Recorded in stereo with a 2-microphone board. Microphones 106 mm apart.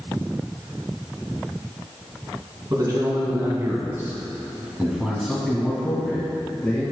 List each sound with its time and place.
2.7 s a man speaking: 40° right (ahead or behind), 2 m; by 6.8 s 15° left (ahead or behind), 2 m